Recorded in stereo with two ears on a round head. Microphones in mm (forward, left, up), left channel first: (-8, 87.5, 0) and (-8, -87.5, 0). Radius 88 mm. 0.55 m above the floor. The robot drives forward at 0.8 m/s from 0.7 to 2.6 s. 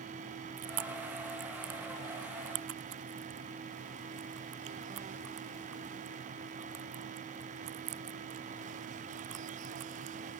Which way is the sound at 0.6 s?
85° right.